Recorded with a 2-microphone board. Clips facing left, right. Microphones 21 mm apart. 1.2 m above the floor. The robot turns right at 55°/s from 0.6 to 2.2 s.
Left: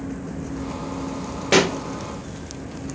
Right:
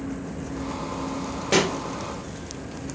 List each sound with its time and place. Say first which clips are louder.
1.5 s a pop: left 4 dB; 20° left (ahead or behind), 1.0 m; by 1.8 s 25° left (ahead or behind), 1.0 m